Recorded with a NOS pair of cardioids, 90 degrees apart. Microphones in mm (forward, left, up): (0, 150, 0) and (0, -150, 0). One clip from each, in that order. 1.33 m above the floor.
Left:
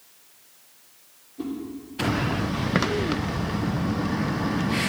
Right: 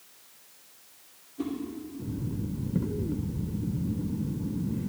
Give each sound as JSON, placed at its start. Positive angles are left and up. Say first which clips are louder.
{"t": 1.4, "sound": "a whoosh", "louder": "left 1 dB", "azimuth_deg": 5, "distance_m": 2.5}